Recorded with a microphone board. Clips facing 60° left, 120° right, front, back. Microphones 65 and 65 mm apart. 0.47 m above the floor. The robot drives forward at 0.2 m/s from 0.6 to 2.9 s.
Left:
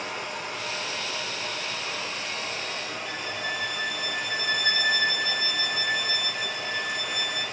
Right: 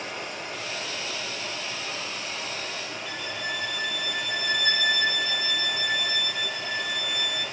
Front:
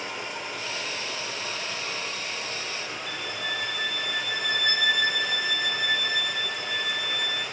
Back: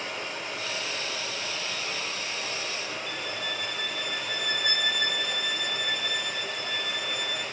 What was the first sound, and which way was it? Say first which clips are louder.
Running water: left 2 dB, front 1 dB; 70° left.